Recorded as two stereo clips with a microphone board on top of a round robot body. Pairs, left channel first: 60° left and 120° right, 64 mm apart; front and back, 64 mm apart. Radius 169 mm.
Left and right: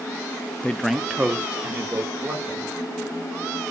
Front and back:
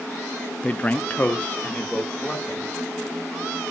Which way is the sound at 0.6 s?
30° left.